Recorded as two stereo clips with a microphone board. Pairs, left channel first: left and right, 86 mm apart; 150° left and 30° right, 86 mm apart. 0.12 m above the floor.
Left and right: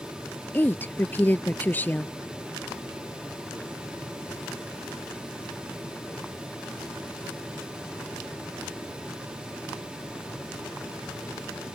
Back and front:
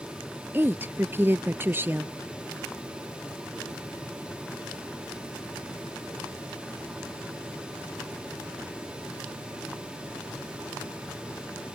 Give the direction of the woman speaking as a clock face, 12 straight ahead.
11 o'clock.